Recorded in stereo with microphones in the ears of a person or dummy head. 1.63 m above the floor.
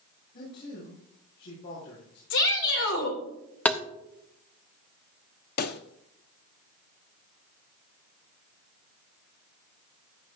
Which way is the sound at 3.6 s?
10° left (ahead or behind).